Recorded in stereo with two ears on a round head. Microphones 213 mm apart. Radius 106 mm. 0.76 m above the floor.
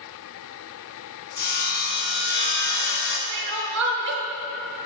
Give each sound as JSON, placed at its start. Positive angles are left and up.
{"t": 1.4, "sound": "sawing", "side_deg": 45, "distance_m": 0.9}
{"t": 3.3, "sound": "crying", "side_deg": -50, "distance_m": 0.7}